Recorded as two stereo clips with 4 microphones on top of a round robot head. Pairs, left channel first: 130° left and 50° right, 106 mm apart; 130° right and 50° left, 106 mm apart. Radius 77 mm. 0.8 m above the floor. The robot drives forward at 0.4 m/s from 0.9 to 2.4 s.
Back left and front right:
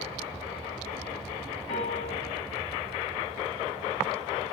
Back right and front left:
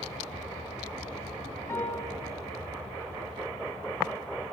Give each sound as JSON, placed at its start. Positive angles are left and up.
{"t": 1.7, "sound": "a piano", "azimuth_deg": 160, "distance_m": 6.5}